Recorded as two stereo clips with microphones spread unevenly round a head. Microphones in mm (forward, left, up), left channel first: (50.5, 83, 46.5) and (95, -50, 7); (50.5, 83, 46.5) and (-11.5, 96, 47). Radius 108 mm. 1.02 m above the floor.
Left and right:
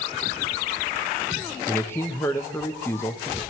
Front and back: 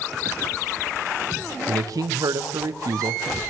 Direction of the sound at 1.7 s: 170° right.